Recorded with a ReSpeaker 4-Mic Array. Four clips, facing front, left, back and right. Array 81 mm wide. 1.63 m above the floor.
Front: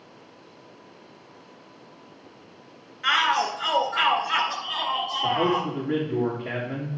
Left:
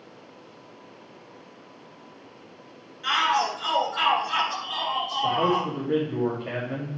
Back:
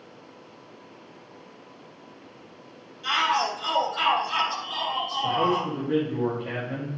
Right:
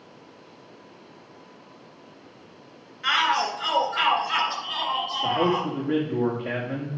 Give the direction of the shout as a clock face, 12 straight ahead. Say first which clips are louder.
Even, front 2 dB; 1 o'clock.